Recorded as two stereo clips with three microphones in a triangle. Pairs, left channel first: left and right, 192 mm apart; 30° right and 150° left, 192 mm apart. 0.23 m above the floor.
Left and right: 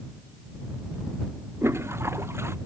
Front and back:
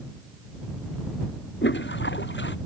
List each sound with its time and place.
1.6 s a toilet flushing: 15° right